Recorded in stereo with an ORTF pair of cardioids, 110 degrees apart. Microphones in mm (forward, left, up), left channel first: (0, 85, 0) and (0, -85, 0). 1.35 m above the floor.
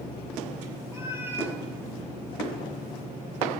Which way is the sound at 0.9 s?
15° right.